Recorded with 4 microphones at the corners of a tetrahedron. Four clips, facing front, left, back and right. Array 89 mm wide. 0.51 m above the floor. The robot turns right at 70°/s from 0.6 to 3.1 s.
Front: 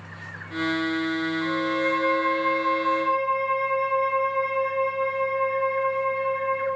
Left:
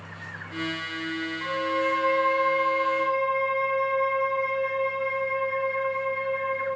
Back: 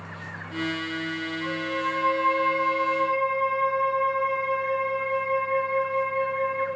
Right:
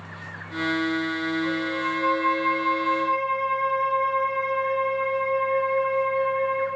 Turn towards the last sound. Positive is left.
turn(degrees=-155)